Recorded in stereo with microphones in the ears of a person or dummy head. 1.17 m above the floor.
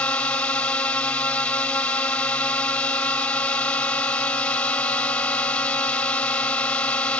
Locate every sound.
0.0 s a drone: 15° left (ahead or behind)